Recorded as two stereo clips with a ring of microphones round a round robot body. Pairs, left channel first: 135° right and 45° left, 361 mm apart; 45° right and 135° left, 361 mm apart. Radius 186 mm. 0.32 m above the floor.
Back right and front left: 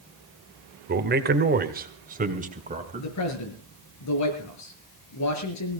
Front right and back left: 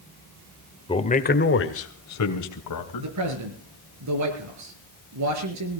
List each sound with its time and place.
0.9 s a man speaking: 20° left, 1.7 m; by 3.1 s 25° right, 3 m
3.0 s a man speaking: straight behind, 5.5 m